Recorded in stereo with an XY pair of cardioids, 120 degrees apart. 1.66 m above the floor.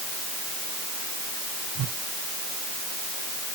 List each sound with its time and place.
1.8 s a whoosh: 65° right